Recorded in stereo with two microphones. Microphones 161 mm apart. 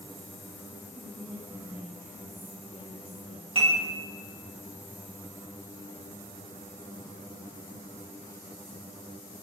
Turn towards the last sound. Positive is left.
turn(degrees=-35)  # may be behind; listen again after turning